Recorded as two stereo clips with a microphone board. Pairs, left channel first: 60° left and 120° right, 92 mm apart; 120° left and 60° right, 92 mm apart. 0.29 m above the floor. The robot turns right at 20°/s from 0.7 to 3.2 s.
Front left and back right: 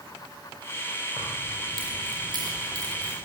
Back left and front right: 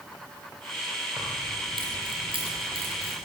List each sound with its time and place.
1.2 s keys jangling: 105° right, 7 m; by 3.1 s 65° right, 7 m